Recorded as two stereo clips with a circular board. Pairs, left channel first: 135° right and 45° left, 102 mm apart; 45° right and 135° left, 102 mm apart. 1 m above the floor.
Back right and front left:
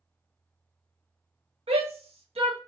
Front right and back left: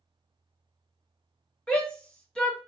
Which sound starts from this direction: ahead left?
A shout, at 1.7 s.